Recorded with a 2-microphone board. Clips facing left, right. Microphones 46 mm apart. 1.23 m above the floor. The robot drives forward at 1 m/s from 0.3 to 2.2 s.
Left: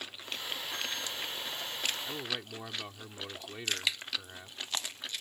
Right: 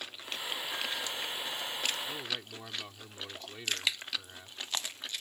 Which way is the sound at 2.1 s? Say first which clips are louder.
Left 1 dB; 15° left (ahead or behind).